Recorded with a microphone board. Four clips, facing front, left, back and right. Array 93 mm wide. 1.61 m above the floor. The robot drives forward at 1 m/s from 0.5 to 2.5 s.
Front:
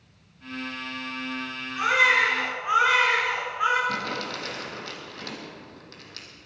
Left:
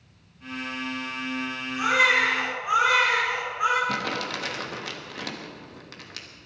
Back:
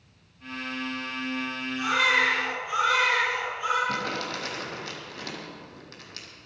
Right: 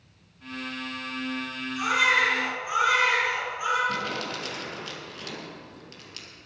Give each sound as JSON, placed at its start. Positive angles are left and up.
{"t": 1.8, "sound": "a baby crying", "azimuth_deg": 30, "distance_m": 6.5}
{"t": 3.9, "sound": "crumpling", "azimuth_deg": 95, "distance_m": 3.0}